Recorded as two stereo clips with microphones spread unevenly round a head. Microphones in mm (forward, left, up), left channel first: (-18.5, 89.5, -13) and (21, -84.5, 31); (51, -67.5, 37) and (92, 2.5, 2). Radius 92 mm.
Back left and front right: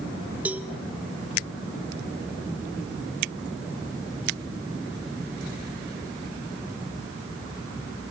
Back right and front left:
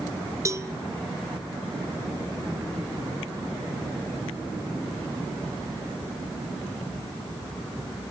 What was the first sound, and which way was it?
A cowbell, 5° right.